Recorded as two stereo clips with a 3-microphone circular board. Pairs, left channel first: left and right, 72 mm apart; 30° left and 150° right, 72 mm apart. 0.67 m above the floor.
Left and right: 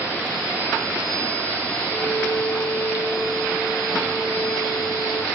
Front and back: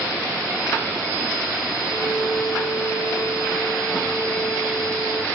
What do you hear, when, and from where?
1.9 s a violin: 80° left, 10 m